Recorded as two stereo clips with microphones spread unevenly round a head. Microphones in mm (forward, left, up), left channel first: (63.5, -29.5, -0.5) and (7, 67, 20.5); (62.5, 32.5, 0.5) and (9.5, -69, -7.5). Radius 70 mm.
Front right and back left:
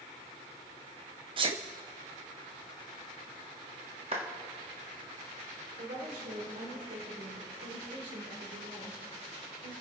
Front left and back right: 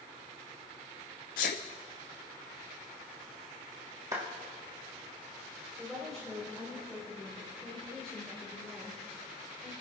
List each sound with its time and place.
1.4 s a sneeze: 75° left, 0.5 m
4.1 s a clap: 175° left, 1.4 m
5.8 s a woman speaking: 150° left, 4 m